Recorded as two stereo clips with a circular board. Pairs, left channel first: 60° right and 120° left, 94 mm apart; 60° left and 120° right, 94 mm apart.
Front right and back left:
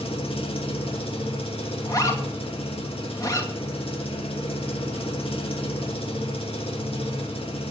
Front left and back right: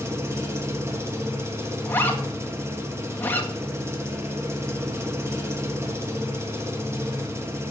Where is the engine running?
60° right, 2 m.